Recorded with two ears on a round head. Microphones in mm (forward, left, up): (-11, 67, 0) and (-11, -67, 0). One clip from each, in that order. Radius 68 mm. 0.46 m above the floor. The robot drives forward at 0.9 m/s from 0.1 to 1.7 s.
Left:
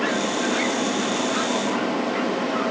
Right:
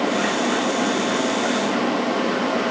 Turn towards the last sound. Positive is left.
No sound to turn to.